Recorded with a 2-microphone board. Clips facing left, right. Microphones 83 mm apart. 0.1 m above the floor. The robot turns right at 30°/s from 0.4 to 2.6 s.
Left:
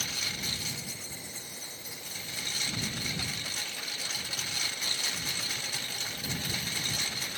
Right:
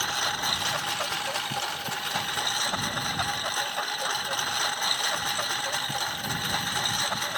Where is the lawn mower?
125° right; by 7.4 s 55° right.